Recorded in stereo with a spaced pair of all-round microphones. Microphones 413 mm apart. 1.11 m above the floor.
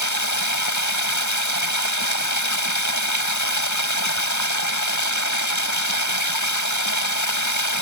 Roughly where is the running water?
Left.